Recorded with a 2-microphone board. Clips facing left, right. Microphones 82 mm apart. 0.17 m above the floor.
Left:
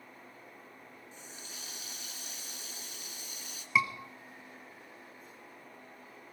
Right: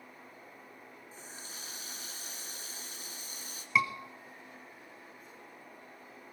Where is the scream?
Centre (ahead or behind), 1.5 m.